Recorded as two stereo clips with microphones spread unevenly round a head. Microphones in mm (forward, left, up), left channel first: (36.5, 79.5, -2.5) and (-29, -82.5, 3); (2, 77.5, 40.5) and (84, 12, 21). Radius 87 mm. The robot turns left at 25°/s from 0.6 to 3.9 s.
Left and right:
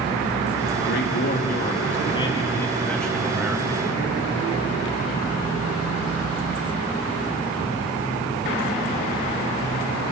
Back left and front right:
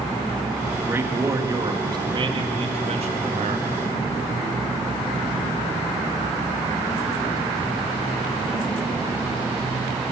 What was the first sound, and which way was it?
A man speaking, 40° left.